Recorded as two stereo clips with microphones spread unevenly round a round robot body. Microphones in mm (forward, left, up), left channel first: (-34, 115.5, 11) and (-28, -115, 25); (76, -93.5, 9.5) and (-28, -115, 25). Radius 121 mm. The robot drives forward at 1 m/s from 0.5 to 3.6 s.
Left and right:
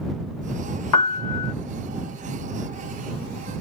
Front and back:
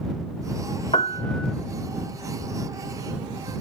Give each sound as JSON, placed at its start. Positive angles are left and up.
{"t": 0.9, "sound": "a piano", "azimuth_deg": 70}